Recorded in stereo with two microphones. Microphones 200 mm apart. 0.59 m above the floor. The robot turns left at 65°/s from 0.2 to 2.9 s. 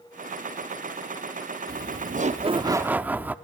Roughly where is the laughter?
Right.